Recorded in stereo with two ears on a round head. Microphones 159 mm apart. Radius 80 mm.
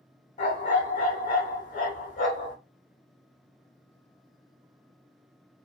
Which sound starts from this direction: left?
A dog barking, at 0.4 s.